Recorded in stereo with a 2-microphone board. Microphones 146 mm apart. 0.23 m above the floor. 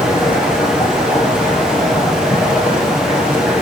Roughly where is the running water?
Centre.